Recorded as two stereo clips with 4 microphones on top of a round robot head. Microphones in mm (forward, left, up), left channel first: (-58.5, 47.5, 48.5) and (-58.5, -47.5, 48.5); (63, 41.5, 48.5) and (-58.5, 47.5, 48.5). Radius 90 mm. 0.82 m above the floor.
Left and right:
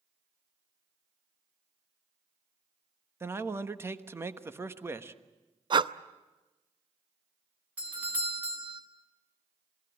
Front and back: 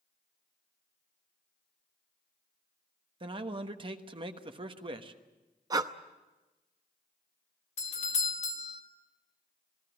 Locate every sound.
3.2 s a man speaking: 145° right, 1.4 m
5.7 s breathing: 125° right, 0.7 m
7.8 s a doorbell: 15° right, 1.8 m